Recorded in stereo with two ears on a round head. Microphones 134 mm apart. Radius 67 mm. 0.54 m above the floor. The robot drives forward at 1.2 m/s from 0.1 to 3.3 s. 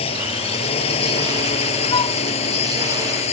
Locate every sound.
0.0 s a drone: 40° left (ahead or behind); by 3.3 s 45° left (ahead or behind)
1.9 s a flute: 30° left (ahead or behind)